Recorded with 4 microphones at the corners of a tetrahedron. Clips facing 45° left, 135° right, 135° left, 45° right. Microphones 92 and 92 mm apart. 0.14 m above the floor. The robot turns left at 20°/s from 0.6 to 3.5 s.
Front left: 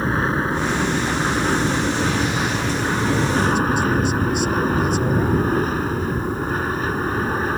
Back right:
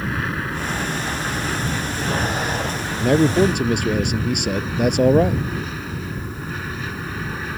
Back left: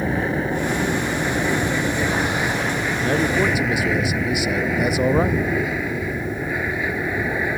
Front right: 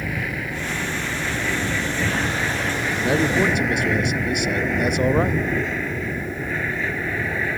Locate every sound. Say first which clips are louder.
0.0 s an aircraft: front left 5 dB, back left 6 dB; 90° left; by 7.6 s 65° left
3.0 s a man speaking: back right 7 dB, front right 1 dB; 125° right; by 5.5 s 140° right